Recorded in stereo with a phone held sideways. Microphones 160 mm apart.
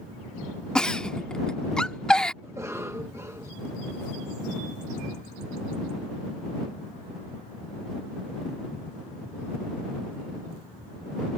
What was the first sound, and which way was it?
A giggle, 5° left (ahead or behind).